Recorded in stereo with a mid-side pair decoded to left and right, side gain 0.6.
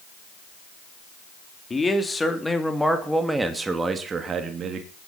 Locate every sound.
1.7 s a man speaking: 20° left, 3 m; by 4.9 s 50° right, 2.5 m